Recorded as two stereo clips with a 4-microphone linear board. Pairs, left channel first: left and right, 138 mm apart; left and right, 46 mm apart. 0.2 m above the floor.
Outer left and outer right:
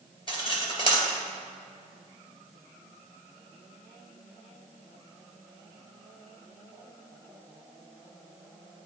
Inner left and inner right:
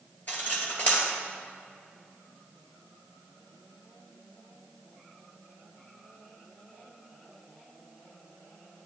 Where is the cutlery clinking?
40° left (ahead or behind), 2.5 m.